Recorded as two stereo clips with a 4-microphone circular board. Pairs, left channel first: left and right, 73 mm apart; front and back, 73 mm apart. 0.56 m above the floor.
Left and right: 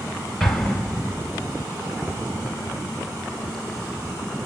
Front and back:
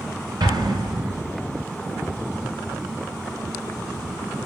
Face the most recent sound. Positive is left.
turn(degrees=180)